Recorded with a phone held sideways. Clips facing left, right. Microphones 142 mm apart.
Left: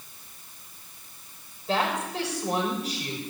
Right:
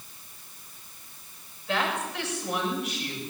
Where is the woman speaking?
35° left (ahead or behind), 7 m.